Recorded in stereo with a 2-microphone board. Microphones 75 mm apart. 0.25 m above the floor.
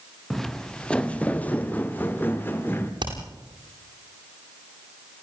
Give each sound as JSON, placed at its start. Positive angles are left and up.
{"t": 0.3, "sound": "footsteps", "side_deg": 5, "distance_m": 1.2}
{"t": 3.0, "sound": "hammering", "side_deg": -85, "distance_m": 9.5}